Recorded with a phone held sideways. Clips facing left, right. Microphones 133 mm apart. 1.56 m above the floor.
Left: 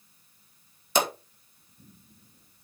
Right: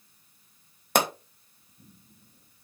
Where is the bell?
No bell in this recording.